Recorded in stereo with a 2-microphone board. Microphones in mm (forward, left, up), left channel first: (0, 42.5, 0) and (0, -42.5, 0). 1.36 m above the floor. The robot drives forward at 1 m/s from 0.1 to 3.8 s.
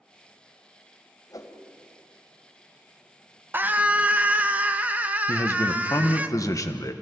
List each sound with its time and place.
1.3 s a whoosh: 45° left (ahead or behind), 2.0 m; by 1.6 s 40° left (ahead or behind), 2 m
3.5 s a scream: 25° right (ahead or behind), 0.8 m; by 6.3 s 20° right (ahead or behind), 1.0 m
5.3 s a man speaking: 40° left (ahead or behind), 1.4 m